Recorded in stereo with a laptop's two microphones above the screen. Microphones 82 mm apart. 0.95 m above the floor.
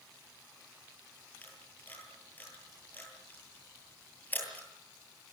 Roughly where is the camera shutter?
Left.